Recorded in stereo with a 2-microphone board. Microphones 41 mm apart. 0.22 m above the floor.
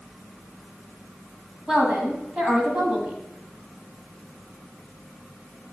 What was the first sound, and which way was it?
A woman speaking, 25° right (ahead or behind).